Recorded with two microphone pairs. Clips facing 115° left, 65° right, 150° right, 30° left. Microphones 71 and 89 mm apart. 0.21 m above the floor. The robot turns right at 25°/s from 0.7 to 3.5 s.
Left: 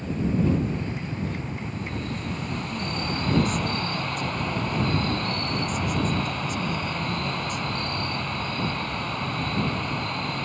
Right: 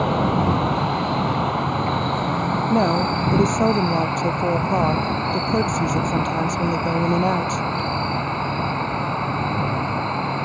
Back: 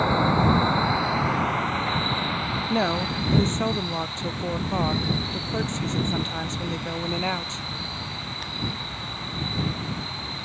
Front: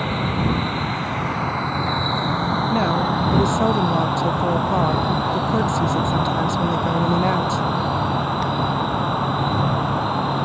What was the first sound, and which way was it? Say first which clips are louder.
An insect: right 6 dB, back 2 dB; 75° right.